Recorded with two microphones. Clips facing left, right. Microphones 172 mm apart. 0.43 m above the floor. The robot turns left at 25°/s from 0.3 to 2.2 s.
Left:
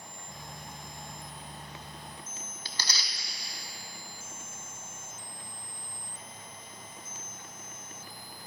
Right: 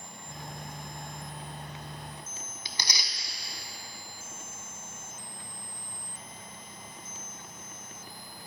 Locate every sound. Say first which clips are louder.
2.6 s tearing paper: right 1 dB; 15° right (ahead or behind), 0.8 m